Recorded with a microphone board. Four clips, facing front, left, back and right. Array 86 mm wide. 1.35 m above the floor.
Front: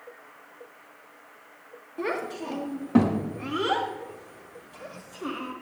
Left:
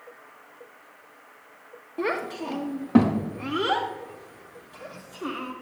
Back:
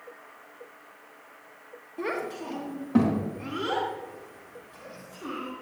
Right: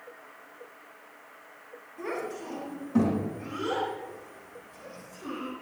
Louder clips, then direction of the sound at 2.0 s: Left 6 dB, front 1 dB; 85° left.